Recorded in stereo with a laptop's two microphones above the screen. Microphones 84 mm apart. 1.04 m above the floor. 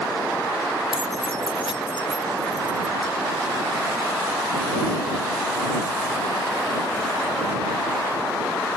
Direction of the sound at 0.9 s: 90° left.